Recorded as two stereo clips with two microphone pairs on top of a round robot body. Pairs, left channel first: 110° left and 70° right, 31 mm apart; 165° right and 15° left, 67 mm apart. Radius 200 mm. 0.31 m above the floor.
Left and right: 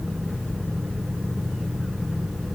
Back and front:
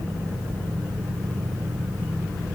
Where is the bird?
No bird in this recording.